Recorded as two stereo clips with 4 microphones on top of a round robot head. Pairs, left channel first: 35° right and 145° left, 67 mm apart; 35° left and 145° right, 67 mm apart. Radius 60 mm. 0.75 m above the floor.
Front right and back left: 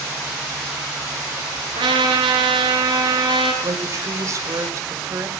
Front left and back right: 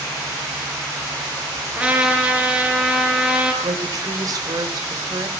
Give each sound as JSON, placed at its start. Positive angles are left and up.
{"t": 1.8, "sound": "a trumpet", "azimuth_deg": 145, "distance_m": 4.5}
{"t": 3.6, "sound": "a woman speaking", "azimuth_deg": -175, "distance_m": 3.0}